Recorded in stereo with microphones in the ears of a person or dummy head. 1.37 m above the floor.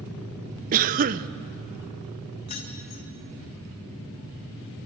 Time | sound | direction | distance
0.7 | a cough | 45° right (ahead or behind) | 0.7 m
2.5 | keys jangling | 45° left (ahead or behind) | 3 m